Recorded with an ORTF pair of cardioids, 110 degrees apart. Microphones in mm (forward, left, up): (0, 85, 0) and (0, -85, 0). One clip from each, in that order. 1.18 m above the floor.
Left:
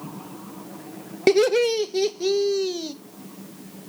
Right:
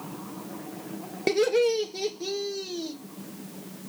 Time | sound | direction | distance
1.3 | laughter | 35° left | 1.2 m